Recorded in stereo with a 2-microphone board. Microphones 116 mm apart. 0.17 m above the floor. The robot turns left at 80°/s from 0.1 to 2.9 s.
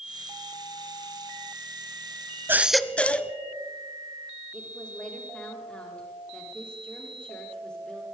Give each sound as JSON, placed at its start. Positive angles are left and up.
{"t": 2.5, "sound": "a baby crying", "azimuth_deg": -160, "distance_m": 0.5}
{"t": 4.5, "sound": "a woman speaking", "side_deg": 10, "distance_m": 5.5}